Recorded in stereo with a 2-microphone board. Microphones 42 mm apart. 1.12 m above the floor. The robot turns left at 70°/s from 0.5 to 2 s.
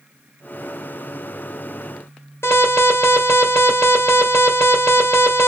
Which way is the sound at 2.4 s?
70° left (ahead or behind).